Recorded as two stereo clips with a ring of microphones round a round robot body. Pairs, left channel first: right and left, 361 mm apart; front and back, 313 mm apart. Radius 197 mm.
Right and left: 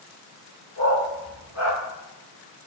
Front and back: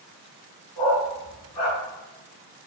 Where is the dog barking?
10° right, 1.4 m; by 1.8 s 5° left, 2 m.